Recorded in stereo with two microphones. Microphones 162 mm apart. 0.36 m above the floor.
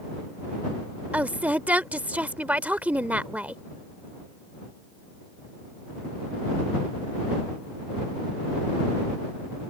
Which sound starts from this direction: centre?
A woman speaking, at 1.1 s.